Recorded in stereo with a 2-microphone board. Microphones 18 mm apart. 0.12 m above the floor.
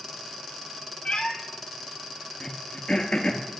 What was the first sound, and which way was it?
A cat meowing, 80° left.